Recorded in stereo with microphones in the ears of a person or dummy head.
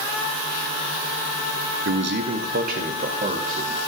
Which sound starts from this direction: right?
A man speaking, at 1.9 s.